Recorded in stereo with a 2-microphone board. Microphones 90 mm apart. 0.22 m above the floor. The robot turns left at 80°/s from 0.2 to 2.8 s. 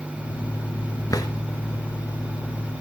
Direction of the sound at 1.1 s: 40° left (ahead or behind).